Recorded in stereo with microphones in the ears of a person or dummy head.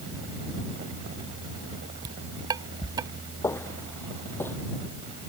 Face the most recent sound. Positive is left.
turn(degrees=10)  # may be behind; listen again after turning